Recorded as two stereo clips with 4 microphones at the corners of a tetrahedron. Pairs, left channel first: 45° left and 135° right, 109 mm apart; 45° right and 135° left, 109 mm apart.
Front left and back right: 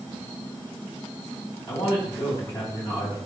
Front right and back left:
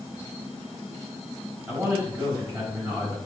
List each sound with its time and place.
1.7 s a man speaking: 90° left, 1.6 m